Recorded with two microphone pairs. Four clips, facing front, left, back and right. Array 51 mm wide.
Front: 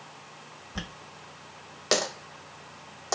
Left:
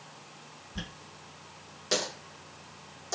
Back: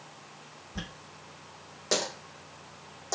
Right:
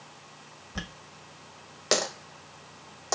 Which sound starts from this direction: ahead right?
A dropped coin, at 0.8 s.